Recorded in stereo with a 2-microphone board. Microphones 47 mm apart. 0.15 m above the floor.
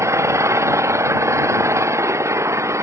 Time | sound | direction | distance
0.0 | an engine running | 80° right | ?